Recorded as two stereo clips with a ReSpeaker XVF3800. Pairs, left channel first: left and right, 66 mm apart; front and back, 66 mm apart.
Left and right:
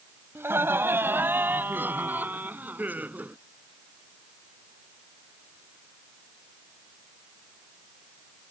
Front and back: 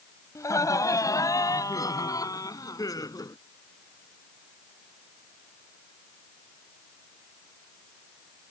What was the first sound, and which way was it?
Laughter, 35° right.